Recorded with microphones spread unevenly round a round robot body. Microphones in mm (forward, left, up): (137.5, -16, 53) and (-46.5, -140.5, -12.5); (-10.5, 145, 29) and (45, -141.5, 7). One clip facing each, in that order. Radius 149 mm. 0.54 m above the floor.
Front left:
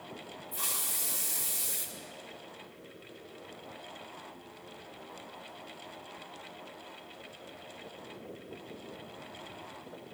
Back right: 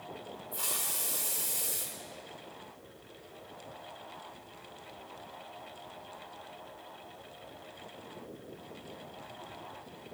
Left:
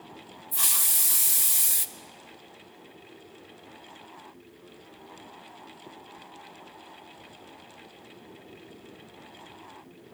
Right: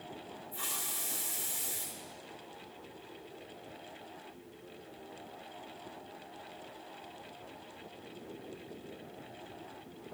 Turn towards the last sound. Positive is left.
turn(degrees=115)